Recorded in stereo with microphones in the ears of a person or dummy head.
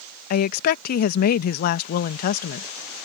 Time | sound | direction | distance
0.3 | a woman speaking | 55° left (ahead or behind) | ?